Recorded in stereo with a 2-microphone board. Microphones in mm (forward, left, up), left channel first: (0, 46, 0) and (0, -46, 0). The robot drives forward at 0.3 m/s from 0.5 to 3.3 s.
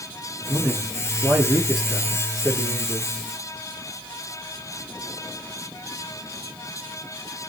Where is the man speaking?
Centre (ahead or behind), 1.3 m.